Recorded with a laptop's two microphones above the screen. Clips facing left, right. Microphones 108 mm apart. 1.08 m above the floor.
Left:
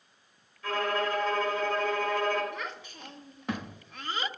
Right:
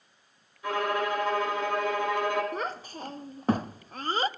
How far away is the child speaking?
About 0.7 m.